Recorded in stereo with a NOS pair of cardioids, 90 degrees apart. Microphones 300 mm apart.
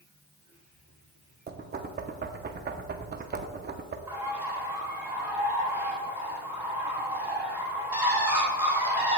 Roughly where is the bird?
Ahead.